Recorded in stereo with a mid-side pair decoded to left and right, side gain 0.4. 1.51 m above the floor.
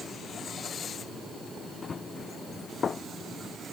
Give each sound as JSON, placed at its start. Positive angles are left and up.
{"t": 1.8, "sound": "running footsteps", "azimuth_deg": 45}